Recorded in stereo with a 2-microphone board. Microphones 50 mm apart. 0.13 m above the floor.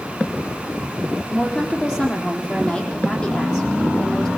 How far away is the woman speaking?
About 4 m.